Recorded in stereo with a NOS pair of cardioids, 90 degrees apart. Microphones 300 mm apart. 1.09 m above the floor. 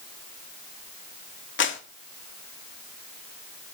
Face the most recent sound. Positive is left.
turn(degrees=40)